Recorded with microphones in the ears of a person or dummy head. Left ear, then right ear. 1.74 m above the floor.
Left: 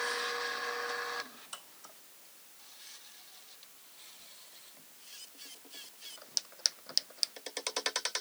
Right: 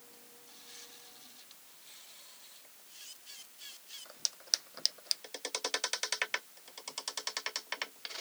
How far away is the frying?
I don't hear frying.